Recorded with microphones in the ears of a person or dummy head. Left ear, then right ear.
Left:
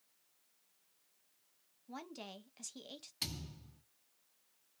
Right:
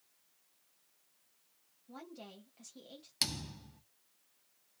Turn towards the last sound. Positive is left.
turn(degrees=-60)  # may be behind; listen again after turning